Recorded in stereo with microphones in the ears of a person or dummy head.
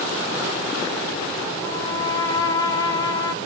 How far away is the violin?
About 0.8 m.